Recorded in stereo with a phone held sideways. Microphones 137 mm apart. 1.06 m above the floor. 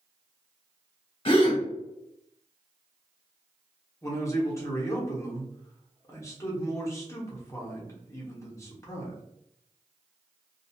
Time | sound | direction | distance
1.2 | a gasp | 40° left (ahead or behind) | 0.8 m
4.0 | a man speaking | 20° left (ahead or behind) | 1.0 m